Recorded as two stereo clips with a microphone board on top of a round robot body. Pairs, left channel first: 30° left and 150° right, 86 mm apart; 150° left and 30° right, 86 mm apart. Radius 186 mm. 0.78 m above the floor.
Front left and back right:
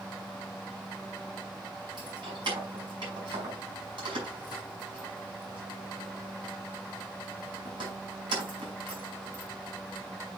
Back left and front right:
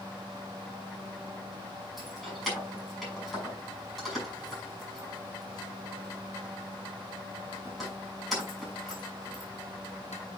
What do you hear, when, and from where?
2.0 s keys jangling: 120° right, 6 m